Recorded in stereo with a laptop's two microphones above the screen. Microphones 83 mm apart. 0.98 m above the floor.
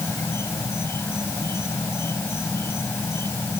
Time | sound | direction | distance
0.0 | an insect | 30° left (ahead or behind) | ?